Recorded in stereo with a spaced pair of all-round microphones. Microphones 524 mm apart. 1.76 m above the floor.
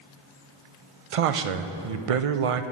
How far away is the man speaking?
About 0.5 m.